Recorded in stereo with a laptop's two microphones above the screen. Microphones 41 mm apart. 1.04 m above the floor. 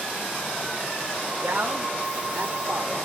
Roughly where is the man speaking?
Right.